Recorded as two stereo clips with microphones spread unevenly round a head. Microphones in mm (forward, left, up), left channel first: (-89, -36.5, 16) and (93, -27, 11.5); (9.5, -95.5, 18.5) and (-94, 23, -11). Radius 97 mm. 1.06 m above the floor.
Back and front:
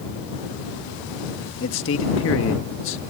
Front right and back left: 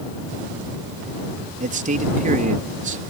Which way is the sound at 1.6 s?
165° left.